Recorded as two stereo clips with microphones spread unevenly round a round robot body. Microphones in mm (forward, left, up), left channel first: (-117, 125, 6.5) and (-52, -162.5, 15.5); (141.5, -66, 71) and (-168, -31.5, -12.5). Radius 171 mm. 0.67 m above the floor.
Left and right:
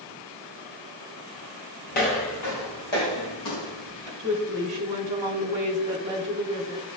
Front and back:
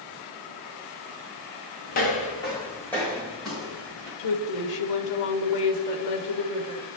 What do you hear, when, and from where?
1.9 s footsteps: 40° left, 1.0 m; by 4.1 s 85° left, 3.5 m
4.2 s a woman speaking: 5° right, 1.1 m